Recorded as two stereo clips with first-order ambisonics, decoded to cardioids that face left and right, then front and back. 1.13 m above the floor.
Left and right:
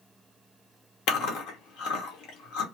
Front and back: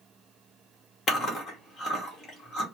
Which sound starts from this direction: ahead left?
Chewing, at 1.1 s.